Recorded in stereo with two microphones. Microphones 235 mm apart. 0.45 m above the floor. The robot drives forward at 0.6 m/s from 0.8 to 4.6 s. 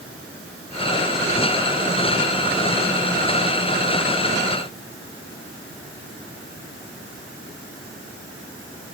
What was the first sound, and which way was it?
Only background noise.